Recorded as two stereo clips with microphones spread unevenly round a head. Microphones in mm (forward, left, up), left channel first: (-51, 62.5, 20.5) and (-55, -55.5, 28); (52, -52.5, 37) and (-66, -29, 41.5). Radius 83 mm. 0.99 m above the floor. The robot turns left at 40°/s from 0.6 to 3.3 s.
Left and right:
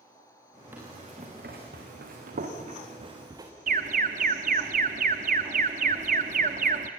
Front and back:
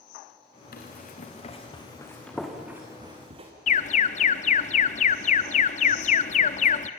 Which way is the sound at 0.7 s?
10° right.